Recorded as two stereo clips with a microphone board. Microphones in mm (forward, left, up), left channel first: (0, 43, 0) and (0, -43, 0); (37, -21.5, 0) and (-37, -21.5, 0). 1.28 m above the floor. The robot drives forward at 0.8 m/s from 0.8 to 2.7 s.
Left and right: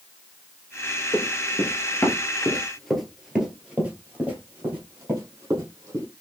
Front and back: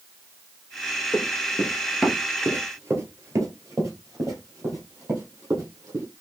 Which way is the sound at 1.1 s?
45° left.